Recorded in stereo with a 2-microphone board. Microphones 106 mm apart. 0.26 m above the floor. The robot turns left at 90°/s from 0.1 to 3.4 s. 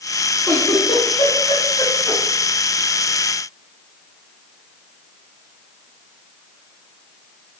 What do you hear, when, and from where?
0.5 s a giggle: 15° left (ahead or behind), 1.0 m; by 2.2 s 5° left (ahead or behind), 1.0 m